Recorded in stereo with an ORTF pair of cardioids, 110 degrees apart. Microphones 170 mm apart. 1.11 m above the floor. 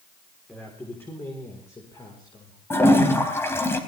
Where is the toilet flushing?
15° left, 4 m.